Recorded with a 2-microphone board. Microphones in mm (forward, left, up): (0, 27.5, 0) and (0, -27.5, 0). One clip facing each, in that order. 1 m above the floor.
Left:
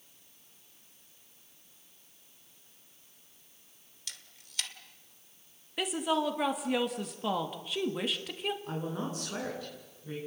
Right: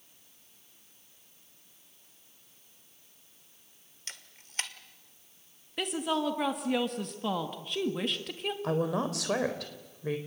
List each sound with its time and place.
4.1 s a camera shutter: 35° right (ahead or behind), 1.8 m
5.8 s a woman speaking: centre (ahead or behind), 1.6 m
8.6 s a woman speaking: 85° right, 4 m